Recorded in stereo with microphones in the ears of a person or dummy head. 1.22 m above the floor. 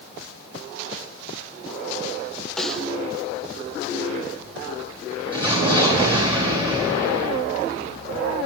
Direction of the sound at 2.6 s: Centre (ahead or behind).